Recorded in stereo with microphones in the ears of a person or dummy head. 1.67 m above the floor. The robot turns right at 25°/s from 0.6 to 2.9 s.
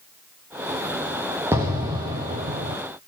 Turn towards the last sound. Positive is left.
turn(degrees=-135)